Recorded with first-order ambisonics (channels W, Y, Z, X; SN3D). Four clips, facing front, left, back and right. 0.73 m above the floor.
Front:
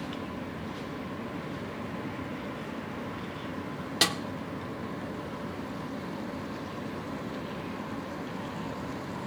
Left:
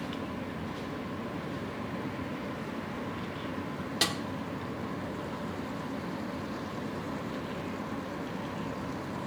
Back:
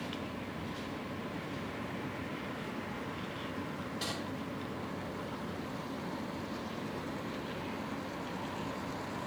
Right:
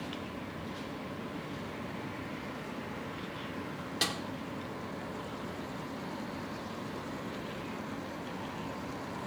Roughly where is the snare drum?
Ahead.